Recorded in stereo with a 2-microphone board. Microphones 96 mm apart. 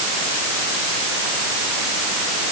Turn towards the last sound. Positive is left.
No sound to turn to.